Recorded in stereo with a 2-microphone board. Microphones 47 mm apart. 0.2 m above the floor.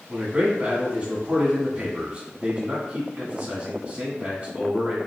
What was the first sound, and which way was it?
A man speaking, 30° right (ahead or behind).